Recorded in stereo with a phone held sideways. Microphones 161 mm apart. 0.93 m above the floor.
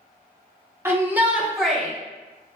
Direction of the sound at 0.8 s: 15° right (ahead or behind).